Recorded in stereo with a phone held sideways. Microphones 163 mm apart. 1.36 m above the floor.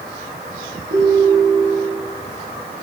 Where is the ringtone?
70° right (ahead or behind), 6.5 m.